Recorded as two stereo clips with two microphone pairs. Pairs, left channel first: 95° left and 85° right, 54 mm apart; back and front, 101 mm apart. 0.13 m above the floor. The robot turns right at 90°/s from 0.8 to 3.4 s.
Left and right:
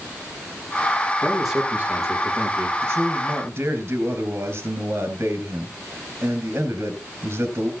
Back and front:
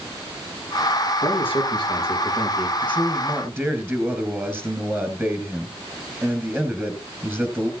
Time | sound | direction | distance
1.2 | a man speaking | 170° left | 4 m
2.8 | a man speaking | 115° right | 2 m